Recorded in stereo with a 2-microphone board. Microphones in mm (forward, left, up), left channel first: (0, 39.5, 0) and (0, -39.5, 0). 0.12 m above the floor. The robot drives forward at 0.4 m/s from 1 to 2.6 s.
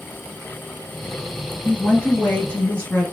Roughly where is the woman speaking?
Left.